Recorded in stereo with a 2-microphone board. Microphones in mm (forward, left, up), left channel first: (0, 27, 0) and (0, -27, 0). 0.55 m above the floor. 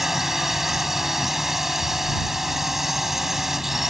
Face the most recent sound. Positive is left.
turn(degrees=-5)  # may be behind; listen again after turning